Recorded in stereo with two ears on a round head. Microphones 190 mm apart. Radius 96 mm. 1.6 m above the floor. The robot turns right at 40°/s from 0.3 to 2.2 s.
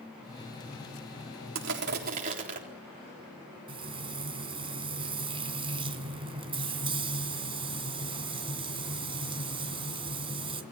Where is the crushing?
60° right (ahead or behind), 4 m; by 2.6 s 35° right (ahead or behind), 4 m.